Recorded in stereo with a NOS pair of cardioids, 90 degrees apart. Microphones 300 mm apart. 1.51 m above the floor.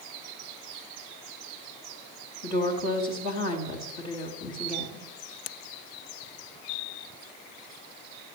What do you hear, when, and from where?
2.4 s a woman speaking: 65° left, 3.5 m